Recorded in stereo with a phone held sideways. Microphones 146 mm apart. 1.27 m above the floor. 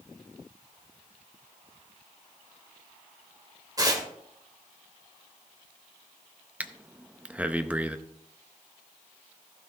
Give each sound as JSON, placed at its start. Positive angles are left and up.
{"t": 3.8, "sound": "tearing paper", "side_deg": -25, "distance_m": 1.6}
{"t": 6.6, "sound": "breathing", "side_deg": -10, "distance_m": 0.6}